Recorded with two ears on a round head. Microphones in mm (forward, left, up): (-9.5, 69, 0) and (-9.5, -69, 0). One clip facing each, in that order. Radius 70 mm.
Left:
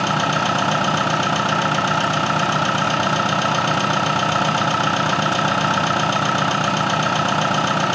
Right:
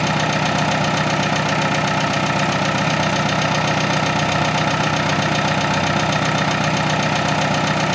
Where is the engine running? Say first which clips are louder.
Right 1 dB; 10° right (ahead or behind), 0.9 m.